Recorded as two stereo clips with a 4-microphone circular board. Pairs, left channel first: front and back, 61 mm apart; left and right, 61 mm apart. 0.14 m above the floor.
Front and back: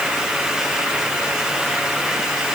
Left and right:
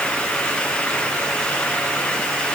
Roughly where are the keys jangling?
No keys jangling in this recording.